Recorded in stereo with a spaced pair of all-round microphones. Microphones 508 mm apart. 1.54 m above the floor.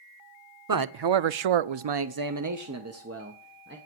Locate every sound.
0.7 s a man speaking: 40° right (ahead or behind), 0.6 m; by 3.8 s 20° right (ahead or behind), 1.4 m